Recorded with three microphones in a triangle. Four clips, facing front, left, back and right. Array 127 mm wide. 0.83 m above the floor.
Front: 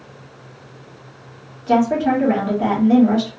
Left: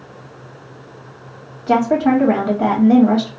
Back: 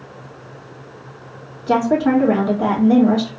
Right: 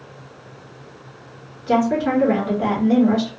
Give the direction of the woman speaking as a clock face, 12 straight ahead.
9 o'clock.